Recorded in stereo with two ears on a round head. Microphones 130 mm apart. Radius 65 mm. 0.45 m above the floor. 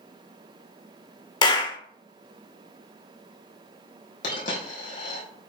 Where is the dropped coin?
60° left (ahead or behind), 4 m.